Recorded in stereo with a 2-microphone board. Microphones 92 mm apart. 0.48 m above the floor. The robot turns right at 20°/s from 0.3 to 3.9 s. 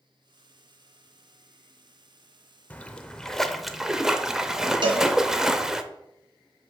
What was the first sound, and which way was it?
A splash, 15° left (ahead or behind).